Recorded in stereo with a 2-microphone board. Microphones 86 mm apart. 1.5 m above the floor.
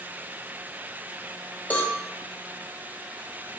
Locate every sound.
1.7 s a cowbell: 20° left (ahead or behind), 0.7 m